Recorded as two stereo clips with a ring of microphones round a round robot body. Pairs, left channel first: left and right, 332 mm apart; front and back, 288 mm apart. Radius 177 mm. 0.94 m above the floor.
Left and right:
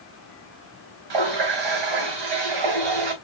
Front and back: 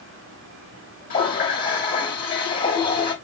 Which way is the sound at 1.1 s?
65° right.